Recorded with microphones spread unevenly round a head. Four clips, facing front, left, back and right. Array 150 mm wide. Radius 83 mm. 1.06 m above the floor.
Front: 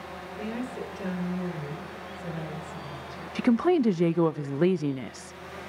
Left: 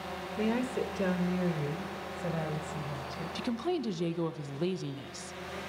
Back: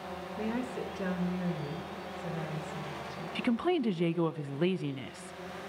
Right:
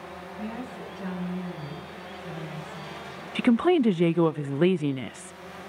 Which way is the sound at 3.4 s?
45° right.